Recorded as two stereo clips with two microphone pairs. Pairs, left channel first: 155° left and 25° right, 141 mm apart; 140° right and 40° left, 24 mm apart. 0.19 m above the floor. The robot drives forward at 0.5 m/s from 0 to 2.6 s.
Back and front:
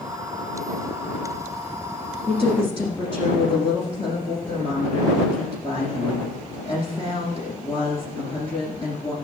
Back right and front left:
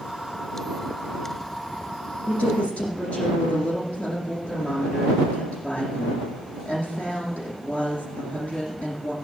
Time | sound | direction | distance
2.3 | a woman speaking | 155° right | 9 m